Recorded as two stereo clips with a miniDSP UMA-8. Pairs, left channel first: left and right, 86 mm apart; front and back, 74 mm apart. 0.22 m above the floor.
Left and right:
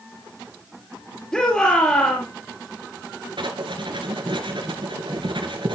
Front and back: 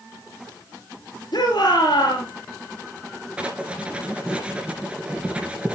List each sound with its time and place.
1.3 s a shout: 15° left, 3.5 m
3.4 s writing: 105° right, 2 m